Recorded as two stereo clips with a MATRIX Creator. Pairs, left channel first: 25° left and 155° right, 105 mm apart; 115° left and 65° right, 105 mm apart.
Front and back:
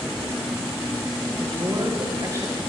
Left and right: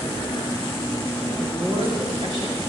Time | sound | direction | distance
1.4 | a woman speaking | 110° right | 8.5 m